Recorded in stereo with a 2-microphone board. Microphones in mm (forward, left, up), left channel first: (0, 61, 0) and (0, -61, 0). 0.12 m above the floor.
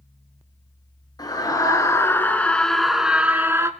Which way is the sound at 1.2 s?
35° left (ahead or behind).